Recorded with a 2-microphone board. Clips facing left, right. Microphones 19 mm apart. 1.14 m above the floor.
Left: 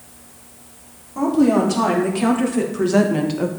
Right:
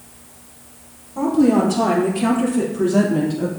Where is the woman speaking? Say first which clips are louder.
Even; 30° left (ahead or behind), 3 m; by 3.5 s 60° left (ahead or behind), 1.1 m.